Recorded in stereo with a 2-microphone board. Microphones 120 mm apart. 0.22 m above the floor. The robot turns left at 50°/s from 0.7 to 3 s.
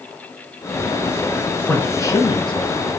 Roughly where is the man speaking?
Behind.